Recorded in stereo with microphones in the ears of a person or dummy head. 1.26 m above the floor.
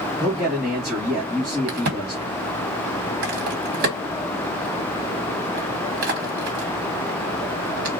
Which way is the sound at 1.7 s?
55° right (ahead or behind).